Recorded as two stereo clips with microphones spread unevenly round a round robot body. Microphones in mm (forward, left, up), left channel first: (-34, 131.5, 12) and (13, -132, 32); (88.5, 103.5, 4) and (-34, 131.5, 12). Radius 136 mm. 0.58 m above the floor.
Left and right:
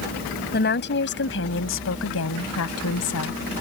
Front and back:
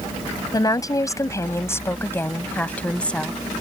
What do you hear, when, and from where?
0.5 s a woman speaking: 45° left; by 3.4 s 70° left